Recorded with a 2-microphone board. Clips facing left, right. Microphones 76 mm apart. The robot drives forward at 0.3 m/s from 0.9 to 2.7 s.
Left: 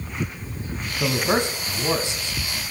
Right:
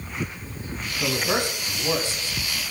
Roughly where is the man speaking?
Left.